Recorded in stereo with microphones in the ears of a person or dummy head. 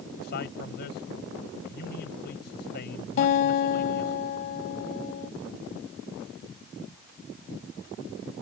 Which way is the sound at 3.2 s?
45° left (ahead or behind).